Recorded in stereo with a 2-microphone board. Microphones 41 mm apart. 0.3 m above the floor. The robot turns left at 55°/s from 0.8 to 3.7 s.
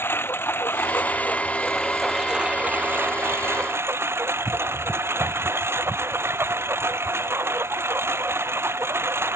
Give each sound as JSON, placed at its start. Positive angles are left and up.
{"t": 0.0, "sound": "a lawn mower", "azimuth_deg": 65}